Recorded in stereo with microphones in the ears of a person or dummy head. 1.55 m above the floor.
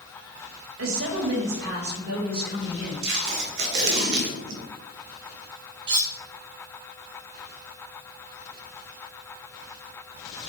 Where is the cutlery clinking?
25° right (ahead or behind), 0.7 m.